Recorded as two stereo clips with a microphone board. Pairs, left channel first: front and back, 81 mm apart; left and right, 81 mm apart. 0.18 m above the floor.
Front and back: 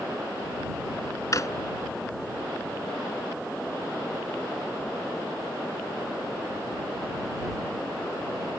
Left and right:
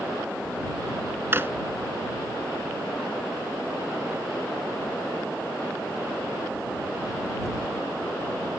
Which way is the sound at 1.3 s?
35° right.